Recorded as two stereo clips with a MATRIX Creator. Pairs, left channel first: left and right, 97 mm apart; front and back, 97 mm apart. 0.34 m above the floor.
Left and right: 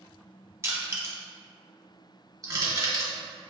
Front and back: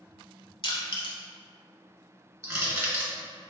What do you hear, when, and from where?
0.6 s crushing: 30° right, 0.9 m
2.4 s crushing: 125° right, 1.3 m